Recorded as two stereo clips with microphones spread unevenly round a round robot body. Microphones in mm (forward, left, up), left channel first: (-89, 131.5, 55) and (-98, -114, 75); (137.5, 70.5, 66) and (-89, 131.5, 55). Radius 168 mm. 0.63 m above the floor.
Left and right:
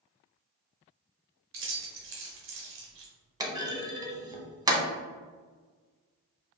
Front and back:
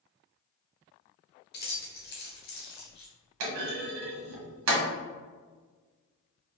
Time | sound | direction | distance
1.5 | keys jangling | 60° right | 0.9 m
3.4 | a clunk | 165° right | 0.9 m